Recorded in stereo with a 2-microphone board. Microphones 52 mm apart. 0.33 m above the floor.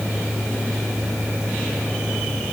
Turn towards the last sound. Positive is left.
No sound to turn to.